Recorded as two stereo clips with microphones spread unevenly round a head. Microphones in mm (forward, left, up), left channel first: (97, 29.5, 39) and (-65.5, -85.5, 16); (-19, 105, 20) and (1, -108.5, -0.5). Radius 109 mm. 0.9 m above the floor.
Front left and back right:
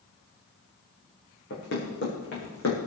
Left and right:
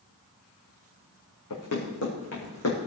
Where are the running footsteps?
75° left, 4.5 m; by 2.8 s 70° left, 4.5 m.